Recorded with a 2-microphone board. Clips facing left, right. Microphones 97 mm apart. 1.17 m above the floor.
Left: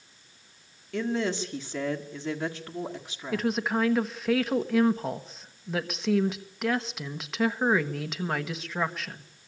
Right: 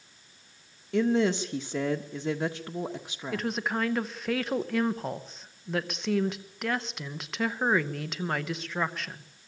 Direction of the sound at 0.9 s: 25° right (ahead or behind).